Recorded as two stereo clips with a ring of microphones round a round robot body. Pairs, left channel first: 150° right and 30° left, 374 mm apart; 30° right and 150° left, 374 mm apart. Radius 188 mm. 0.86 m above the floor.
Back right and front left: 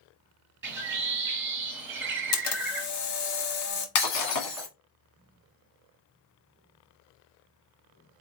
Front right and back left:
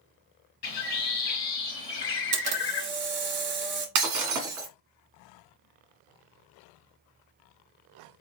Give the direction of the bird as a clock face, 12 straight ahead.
1 o'clock.